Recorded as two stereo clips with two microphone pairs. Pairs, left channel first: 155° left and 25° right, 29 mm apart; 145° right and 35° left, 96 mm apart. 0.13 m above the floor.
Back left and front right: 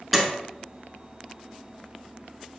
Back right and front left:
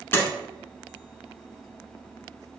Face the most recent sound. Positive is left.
turn(degrees=-110)